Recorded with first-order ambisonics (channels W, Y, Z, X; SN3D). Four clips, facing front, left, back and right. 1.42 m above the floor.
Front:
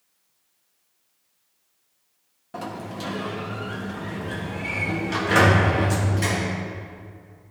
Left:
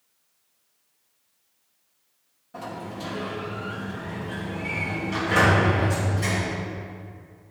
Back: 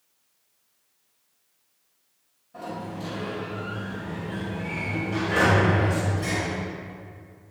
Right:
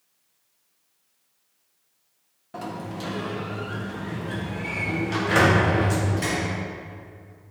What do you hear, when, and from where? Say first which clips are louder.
2.5 s a sliding door: right 2 dB, front 2 dB; 30° right, 1.2 m